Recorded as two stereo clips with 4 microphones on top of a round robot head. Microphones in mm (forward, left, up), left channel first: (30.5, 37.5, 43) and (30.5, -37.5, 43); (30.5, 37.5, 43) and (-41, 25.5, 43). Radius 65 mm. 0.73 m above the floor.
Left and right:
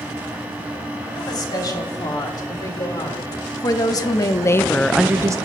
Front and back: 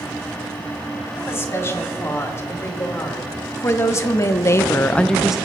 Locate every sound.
1.2 s a woman speaking: 60° left, 4 m; by 5.4 s 95° right, 0.6 m